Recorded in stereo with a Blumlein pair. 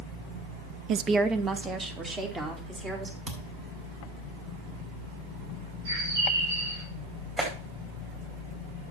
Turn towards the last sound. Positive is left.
turn(degrees=-15)